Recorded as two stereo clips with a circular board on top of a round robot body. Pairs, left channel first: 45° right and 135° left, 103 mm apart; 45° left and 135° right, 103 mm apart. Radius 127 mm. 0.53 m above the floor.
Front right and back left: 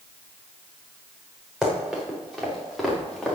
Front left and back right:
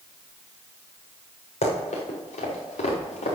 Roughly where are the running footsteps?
Ahead left.